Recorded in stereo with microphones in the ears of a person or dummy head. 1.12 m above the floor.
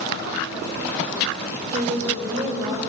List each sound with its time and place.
1.7 s a woman speaking: 20° right (ahead or behind), 3 m